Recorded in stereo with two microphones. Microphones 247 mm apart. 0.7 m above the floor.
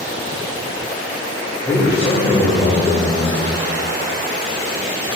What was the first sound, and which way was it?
A man speaking, 20° left (ahead or behind).